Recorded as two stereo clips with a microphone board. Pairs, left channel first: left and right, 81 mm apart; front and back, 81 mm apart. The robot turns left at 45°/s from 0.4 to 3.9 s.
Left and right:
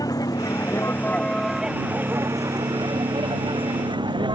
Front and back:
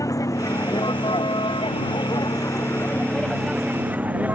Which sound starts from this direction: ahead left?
A vehicle, at 0.0 s.